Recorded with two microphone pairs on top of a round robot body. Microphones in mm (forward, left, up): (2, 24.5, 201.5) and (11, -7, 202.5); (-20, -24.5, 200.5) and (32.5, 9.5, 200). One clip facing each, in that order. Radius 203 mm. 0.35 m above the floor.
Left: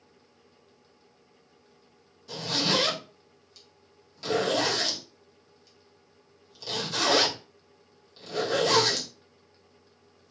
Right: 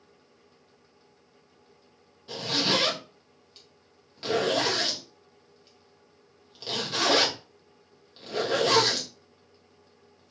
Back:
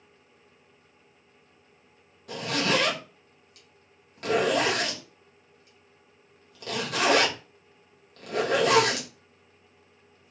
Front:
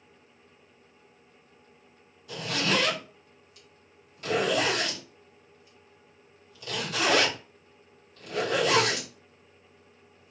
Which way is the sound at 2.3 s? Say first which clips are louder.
Right 1 dB, back 2 dB; 130° right.